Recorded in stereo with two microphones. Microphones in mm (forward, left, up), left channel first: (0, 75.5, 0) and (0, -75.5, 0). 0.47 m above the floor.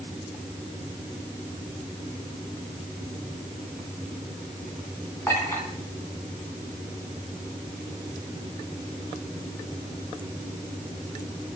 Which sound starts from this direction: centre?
A clink, at 5.3 s.